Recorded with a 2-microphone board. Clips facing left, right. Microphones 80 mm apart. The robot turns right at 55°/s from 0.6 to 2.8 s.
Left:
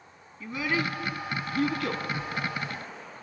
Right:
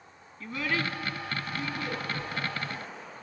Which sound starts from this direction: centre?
A child speaking, at 0.4 s.